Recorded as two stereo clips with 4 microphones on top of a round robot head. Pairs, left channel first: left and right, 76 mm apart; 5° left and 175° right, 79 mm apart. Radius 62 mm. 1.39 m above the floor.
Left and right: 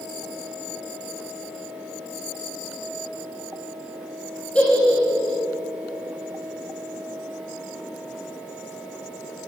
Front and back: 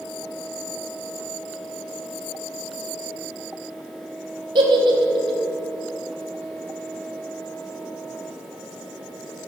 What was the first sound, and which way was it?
A giggle, 170° left.